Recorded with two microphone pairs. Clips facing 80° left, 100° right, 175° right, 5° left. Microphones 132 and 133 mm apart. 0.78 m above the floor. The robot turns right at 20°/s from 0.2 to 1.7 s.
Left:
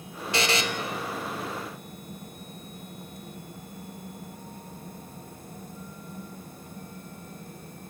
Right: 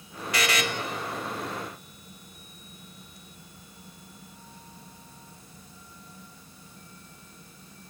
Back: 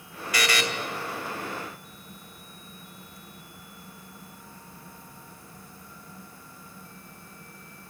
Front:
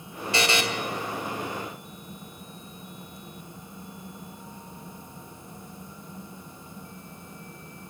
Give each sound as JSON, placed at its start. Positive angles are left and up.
{"t": 0.3, "sound": "a buzzer", "azimuth_deg": 45, "distance_m": 0.7}